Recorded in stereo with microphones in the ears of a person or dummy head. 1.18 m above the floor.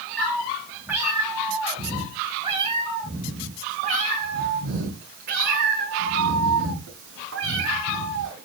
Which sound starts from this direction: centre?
A cat meowing, at 0.2 s.